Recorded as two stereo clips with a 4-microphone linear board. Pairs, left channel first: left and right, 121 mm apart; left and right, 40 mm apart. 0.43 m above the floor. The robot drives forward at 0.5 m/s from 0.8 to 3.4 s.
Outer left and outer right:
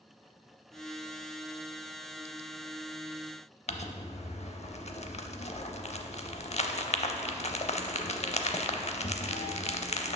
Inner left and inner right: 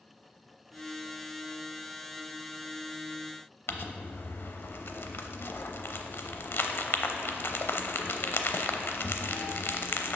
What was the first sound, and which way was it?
Crumpling, 65° left (ahead or behind).